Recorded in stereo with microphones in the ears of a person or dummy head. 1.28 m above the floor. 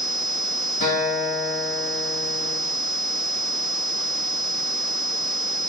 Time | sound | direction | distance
0.8 | a guitar | 60° left (ahead or behind) | 1.8 m